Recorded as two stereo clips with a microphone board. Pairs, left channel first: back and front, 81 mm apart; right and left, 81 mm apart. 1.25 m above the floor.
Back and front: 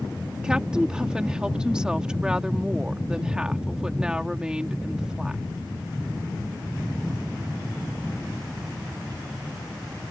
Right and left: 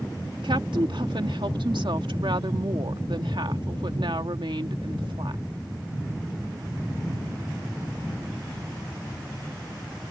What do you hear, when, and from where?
0.4 s a woman speaking: 80° left